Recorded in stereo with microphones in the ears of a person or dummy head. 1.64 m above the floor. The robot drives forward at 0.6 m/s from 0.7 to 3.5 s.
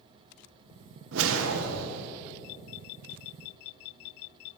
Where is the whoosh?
75° right (ahead or behind), 1.4 m; by 2.1 s 80° right, 1.4 m.